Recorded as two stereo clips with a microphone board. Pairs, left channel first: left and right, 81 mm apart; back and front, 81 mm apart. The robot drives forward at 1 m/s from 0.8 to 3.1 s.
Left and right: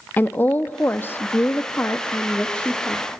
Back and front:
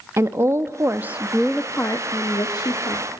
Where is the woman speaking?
35° left, 1.0 m; by 3.1 s 165° left, 1.9 m.